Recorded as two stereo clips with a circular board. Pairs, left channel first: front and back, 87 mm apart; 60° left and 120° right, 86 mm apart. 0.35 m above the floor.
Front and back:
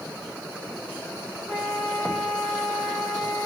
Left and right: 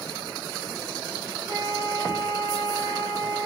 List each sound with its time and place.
1.5 s a flute: 90° right, 1.7 m